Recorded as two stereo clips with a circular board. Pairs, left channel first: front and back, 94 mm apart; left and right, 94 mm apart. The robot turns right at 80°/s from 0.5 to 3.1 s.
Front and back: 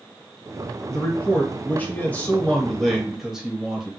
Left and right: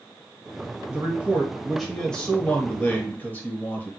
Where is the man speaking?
75° right, 1.0 m; by 3.9 s 105° left, 1.0 m.